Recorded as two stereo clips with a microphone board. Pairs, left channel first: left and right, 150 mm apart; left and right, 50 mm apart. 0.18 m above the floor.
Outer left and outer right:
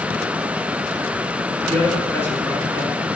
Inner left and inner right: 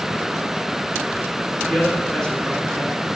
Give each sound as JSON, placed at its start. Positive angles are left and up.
{"t": 1.7, "sound": "a man speaking", "side_deg": 15, "distance_m": 1.8}